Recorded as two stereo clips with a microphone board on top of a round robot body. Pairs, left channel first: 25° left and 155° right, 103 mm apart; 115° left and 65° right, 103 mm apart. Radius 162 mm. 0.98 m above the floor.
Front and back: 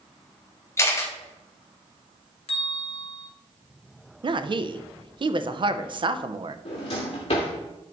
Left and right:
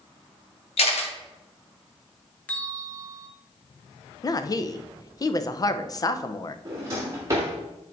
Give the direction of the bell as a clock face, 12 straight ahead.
11 o'clock.